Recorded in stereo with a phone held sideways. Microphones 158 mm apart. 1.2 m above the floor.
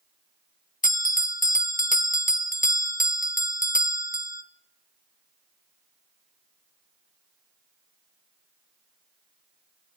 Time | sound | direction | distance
0.8 | a bell | 60° left (ahead or behind) | 1.2 m